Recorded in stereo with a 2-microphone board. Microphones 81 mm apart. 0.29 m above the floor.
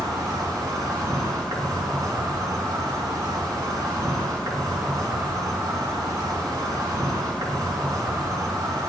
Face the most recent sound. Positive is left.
turn(degrees=-45)  # may be behind; listen again after turning